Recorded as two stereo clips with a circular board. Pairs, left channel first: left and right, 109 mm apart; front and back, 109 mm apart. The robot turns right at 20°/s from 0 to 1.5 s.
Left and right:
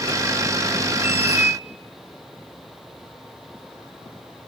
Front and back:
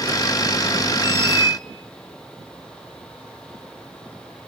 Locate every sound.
1.0 s a squeak: 25° right, 0.5 m; by 1.6 s 15° right, 0.5 m